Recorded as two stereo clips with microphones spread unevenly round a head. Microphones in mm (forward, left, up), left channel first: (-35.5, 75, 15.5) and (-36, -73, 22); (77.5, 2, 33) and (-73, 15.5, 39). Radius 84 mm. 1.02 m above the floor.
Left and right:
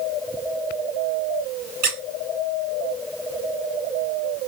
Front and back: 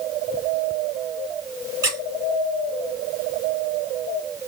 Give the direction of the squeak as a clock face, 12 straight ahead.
4 o'clock.